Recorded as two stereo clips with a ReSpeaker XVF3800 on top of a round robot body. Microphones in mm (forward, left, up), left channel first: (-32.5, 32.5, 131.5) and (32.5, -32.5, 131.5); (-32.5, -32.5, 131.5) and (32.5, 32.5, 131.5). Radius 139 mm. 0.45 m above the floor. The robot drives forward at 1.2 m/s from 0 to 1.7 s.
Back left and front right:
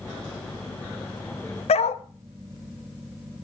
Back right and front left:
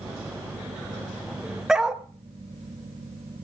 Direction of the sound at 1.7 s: 130° left.